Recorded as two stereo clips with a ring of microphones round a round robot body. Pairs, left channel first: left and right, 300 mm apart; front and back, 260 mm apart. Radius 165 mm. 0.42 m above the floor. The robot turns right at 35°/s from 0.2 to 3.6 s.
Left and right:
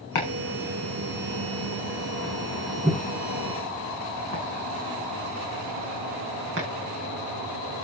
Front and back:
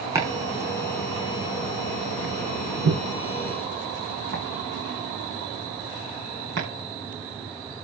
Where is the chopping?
100° left, 8 m; by 6.7 s 140° right, 8 m.